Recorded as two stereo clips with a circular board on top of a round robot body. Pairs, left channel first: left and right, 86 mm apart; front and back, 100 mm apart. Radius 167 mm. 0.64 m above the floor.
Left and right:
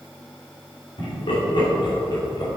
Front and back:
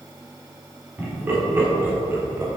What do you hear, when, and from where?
1.0 s laughter: 110° left, 3 m; by 2.5 s 120° left, 2 m